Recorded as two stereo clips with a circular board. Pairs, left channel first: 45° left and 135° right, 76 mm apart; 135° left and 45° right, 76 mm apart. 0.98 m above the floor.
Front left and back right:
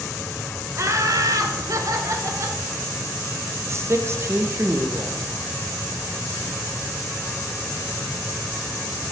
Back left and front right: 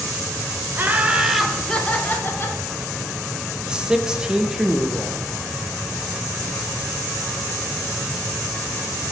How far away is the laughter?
About 1.0 m.